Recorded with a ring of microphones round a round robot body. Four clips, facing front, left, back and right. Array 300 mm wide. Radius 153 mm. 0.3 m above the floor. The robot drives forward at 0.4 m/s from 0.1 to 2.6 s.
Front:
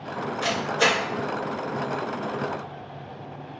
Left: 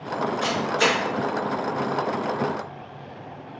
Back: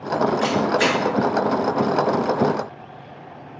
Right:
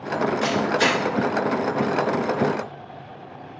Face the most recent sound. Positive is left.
turn(degrees=-170)